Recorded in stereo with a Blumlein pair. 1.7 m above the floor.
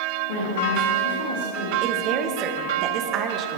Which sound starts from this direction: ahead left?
A woman speaking, at 0.3 s.